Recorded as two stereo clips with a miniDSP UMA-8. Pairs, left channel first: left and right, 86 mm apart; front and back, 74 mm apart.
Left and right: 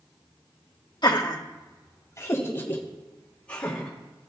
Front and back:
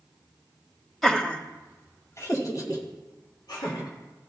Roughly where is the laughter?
Left.